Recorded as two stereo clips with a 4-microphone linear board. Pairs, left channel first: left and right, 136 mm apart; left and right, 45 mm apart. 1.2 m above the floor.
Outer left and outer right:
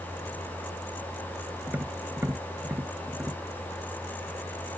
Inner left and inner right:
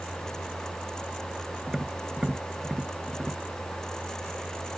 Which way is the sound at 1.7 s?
15° right (ahead or behind).